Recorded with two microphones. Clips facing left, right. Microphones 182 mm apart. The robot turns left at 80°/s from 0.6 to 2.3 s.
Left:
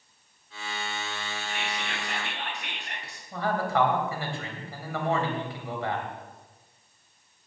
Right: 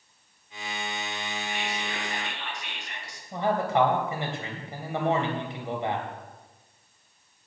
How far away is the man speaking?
About 3 m.